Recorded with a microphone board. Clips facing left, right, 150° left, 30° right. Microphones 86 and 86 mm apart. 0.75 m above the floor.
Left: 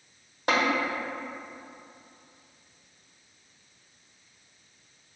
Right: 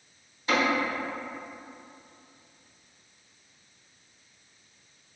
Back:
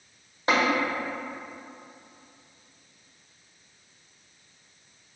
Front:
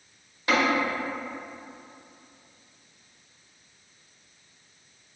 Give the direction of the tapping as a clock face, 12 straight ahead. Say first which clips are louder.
Left 1 dB, even; 9 o'clock.